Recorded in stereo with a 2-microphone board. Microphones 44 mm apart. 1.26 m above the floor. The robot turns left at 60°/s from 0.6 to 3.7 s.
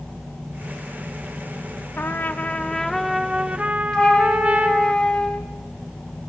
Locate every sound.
2.0 s a trumpet: 65° left, 0.7 m; by 4.9 s 40° right, 0.7 m
3.9 s a flute: 25° left (ahead or behind), 1.3 m